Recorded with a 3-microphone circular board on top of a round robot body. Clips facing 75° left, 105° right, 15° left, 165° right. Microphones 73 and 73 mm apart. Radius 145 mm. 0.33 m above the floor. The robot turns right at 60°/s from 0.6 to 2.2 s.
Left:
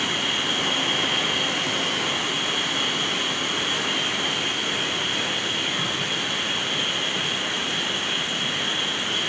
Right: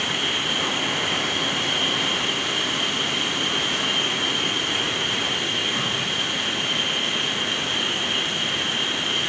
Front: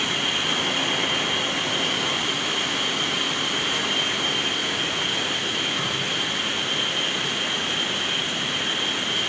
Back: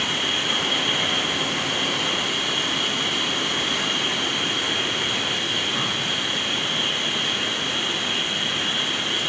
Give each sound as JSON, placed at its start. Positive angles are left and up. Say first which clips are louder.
{"t": 0.0, "sound": "an insect", "louder": "even, even", "azimuth_deg": 140, "distance_m": 6.5}